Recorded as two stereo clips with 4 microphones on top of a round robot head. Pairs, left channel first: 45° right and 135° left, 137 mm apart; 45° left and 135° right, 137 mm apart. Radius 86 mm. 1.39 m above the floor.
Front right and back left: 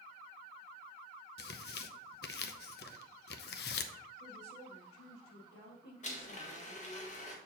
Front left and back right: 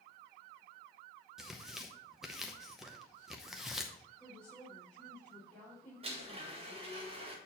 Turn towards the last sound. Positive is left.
turn(degrees=-85)